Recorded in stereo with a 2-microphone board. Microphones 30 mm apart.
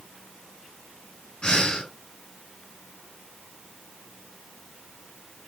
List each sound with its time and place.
1.4 s breathing: 30° left (ahead or behind), 1.1 m